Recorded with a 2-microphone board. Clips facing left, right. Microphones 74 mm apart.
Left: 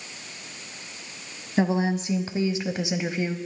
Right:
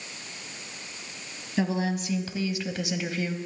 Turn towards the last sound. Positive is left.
turn(degrees=20)  # may be behind; listen again after turning